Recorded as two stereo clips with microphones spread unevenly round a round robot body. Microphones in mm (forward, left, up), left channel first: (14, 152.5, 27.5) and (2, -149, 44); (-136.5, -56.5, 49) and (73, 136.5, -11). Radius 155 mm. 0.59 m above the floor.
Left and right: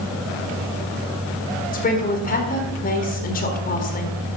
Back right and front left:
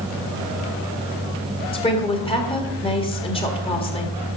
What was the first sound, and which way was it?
A woman speaking, 145° left.